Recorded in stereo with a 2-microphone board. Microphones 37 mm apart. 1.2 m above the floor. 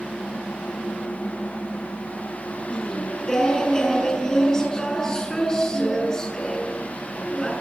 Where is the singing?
20° left (ahead or behind), 6 m.